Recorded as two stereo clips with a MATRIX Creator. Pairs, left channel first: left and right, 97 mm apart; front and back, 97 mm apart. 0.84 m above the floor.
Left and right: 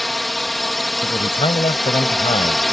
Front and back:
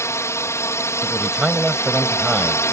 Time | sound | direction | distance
0.0 | a drone | straight ahead | ?
1.0 | a man speaking | 95° left | ?